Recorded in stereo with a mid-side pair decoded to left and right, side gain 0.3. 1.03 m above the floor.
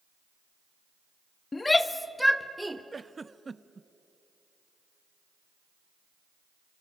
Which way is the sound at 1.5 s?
45° left.